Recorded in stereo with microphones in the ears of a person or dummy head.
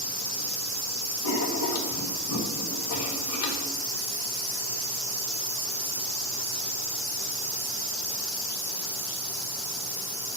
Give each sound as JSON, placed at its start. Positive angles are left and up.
{"t": 1.2, "sound": "writing", "side_deg": 80, "distance_m": 1.4}